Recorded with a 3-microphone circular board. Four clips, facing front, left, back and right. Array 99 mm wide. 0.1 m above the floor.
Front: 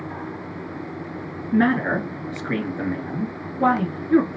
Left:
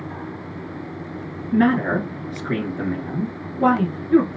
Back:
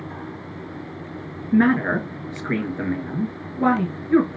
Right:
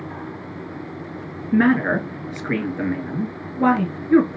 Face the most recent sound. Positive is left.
turn(degrees=-100)